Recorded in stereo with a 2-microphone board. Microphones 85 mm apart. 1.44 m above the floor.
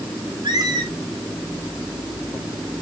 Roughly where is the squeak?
Right.